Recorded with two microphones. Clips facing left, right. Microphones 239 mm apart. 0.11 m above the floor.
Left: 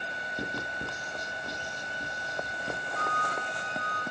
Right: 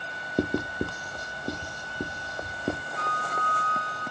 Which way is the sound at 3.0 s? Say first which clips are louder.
Even; 10° right (ahead or behind).